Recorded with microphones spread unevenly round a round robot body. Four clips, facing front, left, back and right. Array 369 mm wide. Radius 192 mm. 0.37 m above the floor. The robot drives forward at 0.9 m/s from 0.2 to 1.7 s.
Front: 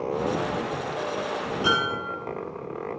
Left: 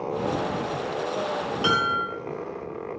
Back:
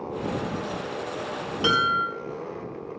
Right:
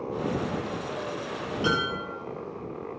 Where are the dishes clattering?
145° left, 6.5 m.